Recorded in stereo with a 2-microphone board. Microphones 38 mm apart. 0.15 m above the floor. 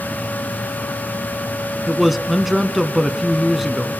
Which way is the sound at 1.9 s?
5° right (ahead or behind).